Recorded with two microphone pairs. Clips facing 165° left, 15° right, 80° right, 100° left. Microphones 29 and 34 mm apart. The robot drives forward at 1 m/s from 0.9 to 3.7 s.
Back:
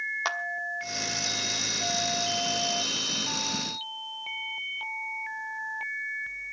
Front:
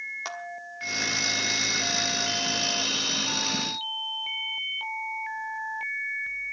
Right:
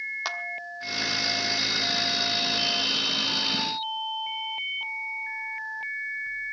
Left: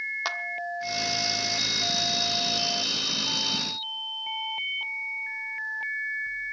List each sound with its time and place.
0.2 s a clap: straight behind, 1.1 m